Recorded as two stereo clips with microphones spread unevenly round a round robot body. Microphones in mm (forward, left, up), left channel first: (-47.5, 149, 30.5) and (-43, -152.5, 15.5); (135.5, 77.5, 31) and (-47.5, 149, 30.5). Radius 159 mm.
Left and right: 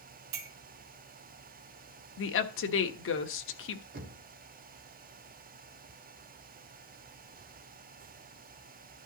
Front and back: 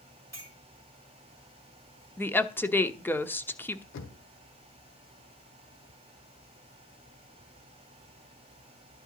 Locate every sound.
0.3 s a clink: 100° right, 2 m
2.2 s a woman speaking: 55° left, 1.1 m
3.9 s knocking: 30° right, 1.3 m